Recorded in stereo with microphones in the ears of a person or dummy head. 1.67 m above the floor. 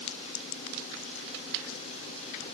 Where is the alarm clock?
No alarm clock in this recording.